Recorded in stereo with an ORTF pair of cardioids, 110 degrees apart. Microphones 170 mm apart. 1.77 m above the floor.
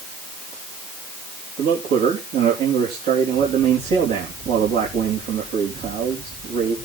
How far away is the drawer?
No drawer in this recording.